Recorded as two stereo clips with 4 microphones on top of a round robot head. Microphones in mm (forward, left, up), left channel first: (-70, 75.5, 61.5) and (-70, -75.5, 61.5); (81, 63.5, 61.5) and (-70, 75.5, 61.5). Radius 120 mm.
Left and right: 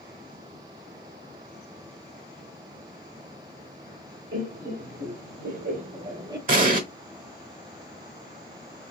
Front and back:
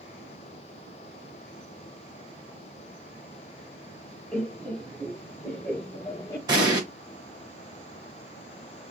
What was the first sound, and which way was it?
Laughter, 90° right.